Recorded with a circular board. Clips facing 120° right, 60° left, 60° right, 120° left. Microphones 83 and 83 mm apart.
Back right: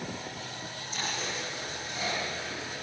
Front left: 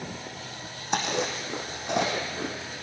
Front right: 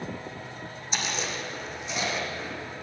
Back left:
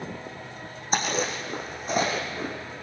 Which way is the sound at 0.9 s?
75° left.